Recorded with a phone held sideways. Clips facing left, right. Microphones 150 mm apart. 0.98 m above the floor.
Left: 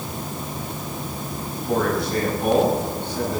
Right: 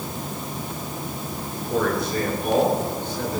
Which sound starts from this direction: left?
A man speaking, at 1.7 s.